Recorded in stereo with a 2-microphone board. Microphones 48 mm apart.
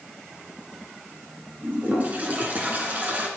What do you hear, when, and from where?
1.6 s a toilet flushing: 35° right (ahead or behind), 2.5 m